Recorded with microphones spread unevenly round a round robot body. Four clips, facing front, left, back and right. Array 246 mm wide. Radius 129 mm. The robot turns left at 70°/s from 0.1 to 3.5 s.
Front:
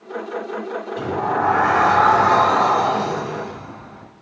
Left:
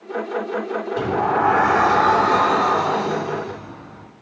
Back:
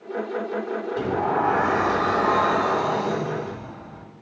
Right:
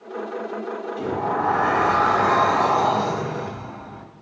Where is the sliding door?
95° left, 1.5 m; by 4.0 s 85° right, 1.5 m.